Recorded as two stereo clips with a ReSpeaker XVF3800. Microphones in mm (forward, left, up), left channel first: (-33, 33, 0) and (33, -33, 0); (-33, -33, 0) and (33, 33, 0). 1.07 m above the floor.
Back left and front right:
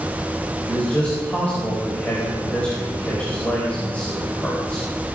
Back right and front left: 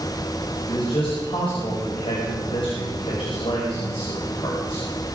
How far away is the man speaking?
About 4.5 m.